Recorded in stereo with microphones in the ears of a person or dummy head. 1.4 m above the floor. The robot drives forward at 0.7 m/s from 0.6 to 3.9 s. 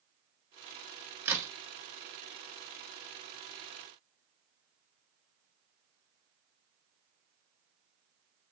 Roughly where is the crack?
Centre.